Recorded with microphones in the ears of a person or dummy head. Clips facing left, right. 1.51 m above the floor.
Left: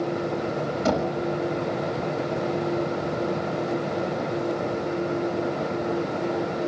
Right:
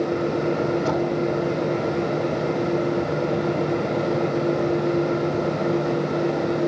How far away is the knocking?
About 6 m.